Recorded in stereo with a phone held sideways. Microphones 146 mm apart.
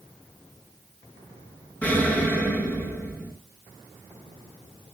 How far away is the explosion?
About 10 m.